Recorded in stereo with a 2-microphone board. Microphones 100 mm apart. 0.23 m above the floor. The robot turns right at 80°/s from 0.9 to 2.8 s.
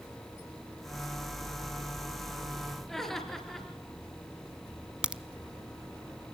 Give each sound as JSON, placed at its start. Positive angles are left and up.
{"t": 2.9, "sound": "laughter", "side_deg": 5, "distance_m": 4.5}
{"t": 5.0, "sound": "a crack", "side_deg": -10, "distance_m": 0.8}